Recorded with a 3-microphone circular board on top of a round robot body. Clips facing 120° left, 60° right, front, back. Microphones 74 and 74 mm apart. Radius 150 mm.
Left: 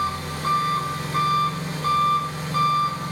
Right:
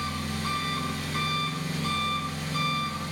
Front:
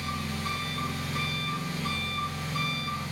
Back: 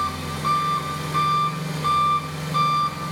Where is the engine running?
175° left, 3.5 m.